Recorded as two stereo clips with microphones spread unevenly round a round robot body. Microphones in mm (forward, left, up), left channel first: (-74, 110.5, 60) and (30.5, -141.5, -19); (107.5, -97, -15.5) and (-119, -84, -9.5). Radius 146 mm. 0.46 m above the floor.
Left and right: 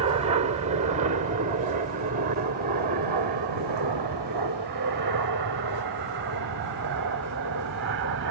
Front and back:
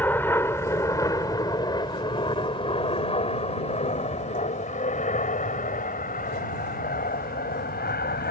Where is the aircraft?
80° right; by 8.3 s 45° right.